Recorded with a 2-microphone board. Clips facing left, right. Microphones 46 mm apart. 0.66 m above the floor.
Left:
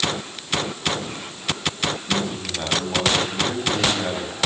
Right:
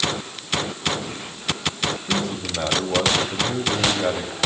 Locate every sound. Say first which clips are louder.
2.1 s a man speaking: even; 70° right (ahead or behind), 4.5 m